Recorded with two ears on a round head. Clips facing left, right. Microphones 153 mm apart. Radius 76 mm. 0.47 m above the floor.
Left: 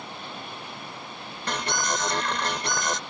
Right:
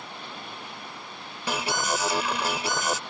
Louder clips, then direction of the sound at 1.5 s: Right 1 dB; 5° right (ahead or behind).